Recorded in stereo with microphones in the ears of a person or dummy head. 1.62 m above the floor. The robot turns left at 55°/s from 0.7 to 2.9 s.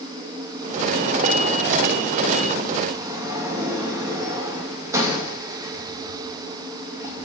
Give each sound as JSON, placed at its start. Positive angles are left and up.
{"t": 2.9, "sound": "a sliding door", "side_deg": -15, "distance_m": 2.5}